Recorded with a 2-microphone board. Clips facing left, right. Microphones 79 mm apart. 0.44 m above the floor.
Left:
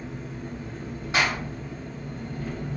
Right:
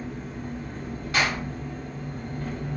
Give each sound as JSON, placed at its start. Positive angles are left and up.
{"t": 0.0, "sound": "an engine running", "side_deg": -50, "distance_m": 1.2}
{"t": 1.1, "sound": "a clap", "side_deg": 20, "distance_m": 1.8}